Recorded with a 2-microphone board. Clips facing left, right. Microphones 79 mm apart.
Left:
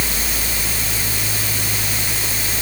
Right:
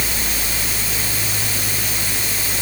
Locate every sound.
Only background noise.